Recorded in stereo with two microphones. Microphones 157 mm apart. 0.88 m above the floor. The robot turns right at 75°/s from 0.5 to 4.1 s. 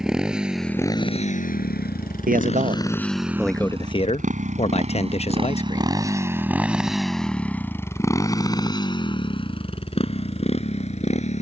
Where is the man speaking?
90° right; by 6.0 s 50° left.